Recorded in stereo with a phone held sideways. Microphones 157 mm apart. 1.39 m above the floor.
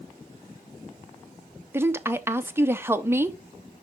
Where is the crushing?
No crushing in this recording.